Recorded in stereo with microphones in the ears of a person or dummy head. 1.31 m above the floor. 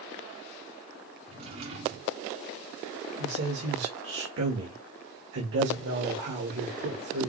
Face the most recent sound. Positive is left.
turn(degrees=-75)  # may be behind; listen again after turning